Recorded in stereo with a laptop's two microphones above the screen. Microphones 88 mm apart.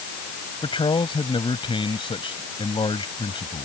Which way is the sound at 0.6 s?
80° left.